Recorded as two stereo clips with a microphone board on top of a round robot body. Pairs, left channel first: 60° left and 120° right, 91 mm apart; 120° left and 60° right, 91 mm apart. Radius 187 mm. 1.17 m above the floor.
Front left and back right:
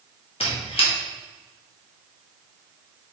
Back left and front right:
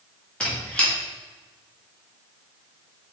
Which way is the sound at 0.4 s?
40° left.